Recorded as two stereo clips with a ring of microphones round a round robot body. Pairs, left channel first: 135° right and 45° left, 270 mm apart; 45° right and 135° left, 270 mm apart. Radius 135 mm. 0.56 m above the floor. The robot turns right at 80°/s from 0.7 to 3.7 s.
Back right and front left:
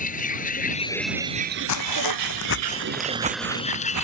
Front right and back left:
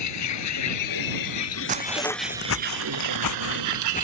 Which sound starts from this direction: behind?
Footsteps, at 1.7 s.